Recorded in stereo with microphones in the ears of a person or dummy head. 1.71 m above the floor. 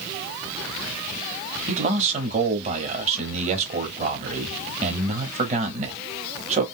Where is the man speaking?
35° right (ahead or behind), 1.0 m.